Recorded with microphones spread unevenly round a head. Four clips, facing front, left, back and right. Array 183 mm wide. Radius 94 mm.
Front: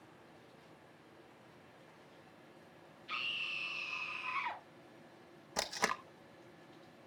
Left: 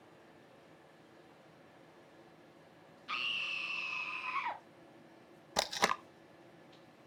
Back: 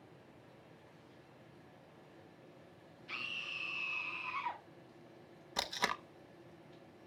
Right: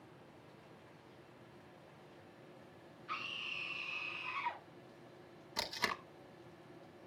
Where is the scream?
120° left, 1.3 m; by 4.6 s 55° left, 1.7 m.